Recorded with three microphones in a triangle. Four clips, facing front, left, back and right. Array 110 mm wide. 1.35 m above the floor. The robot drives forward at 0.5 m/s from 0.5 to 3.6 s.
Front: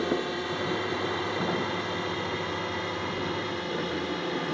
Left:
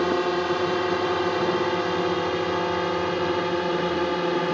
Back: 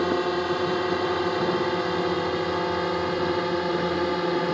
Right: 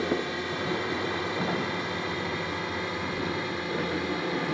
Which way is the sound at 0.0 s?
125° left.